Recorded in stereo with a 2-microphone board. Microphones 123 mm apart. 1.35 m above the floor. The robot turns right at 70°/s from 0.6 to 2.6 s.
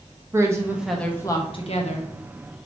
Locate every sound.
0.3 s a woman speaking: 20° right, 1.0 m; by 2.1 s 80° left, 1.0 m